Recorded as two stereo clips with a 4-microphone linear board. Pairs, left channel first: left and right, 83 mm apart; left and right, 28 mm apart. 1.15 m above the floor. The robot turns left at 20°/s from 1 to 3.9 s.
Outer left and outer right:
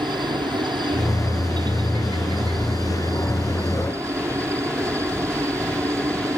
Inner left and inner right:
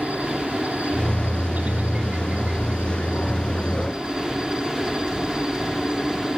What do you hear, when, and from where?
0.0 s a helicopter: 85° right; by 6.4 s 140° right